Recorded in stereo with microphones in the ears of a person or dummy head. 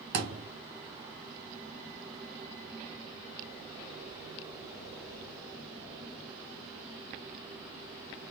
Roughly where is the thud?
Right.